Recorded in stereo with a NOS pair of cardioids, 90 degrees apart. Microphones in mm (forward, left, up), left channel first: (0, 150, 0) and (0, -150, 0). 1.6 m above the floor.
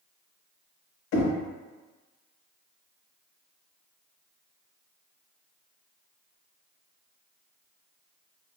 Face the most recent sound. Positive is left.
turn(degrees=65)